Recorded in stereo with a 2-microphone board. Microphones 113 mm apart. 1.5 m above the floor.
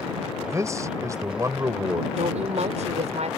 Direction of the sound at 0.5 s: 25° right (ahead or behind).